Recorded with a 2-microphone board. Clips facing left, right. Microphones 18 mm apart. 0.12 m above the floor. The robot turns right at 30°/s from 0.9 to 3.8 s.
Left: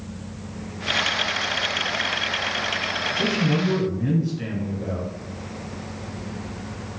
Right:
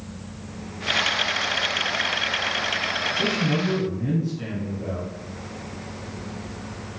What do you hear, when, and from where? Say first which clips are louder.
3.2 s a man speaking: left 3 dB; 15° left (ahead or behind), 1.1 m